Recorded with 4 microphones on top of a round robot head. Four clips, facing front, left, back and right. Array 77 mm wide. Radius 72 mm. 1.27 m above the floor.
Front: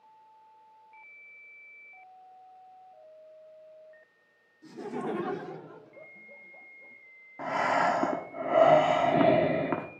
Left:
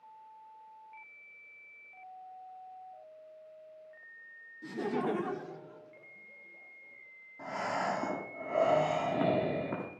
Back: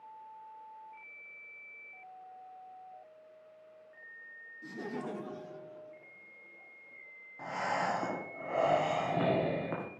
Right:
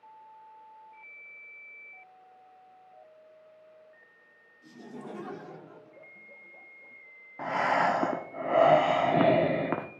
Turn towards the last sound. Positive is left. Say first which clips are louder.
# right 8 dB, front 7 dB
turn(degrees=-55)